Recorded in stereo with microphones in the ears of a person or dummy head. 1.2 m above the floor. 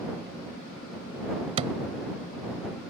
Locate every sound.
1.6 s a thud: 30° right (ahead or behind)